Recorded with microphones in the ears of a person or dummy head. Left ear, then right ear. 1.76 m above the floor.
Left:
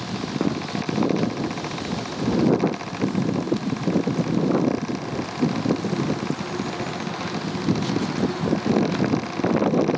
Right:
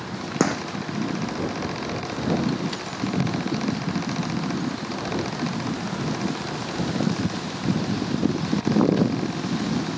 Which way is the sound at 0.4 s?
75° right (ahead or behind).